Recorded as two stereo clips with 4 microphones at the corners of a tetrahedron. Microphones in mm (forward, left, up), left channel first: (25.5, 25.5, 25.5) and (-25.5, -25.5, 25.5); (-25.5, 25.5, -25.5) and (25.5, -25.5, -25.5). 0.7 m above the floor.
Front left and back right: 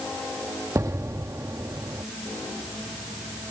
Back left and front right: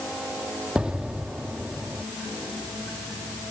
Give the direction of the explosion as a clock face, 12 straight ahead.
4 o'clock.